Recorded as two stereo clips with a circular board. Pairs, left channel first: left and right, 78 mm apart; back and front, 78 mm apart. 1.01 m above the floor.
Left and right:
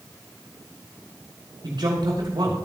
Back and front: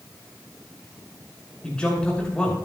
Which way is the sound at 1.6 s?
105° right.